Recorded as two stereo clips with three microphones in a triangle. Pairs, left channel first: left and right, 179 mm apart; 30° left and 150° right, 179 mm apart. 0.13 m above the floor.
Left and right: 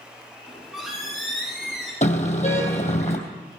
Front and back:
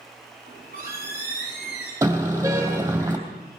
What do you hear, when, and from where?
0.5 s a squeak: straight ahead, 7.5 m
2.0 s a car horn: 135° left, 2.5 m